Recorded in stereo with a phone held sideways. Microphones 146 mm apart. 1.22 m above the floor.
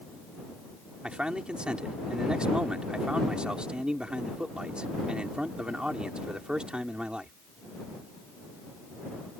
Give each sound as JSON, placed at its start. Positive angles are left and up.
{"t": 1.0, "sound": "a man speaking", "side_deg": -5}